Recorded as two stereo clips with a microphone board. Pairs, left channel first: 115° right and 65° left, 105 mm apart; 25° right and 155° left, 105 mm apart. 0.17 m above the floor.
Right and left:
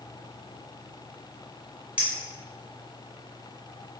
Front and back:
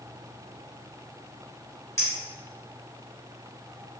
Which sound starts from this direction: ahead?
A clink, at 2.0 s.